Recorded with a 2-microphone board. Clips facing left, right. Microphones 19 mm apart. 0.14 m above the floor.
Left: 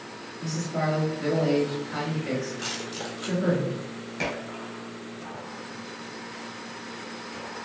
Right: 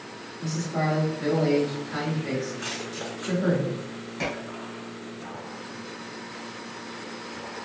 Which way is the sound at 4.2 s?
15° left (ahead or behind).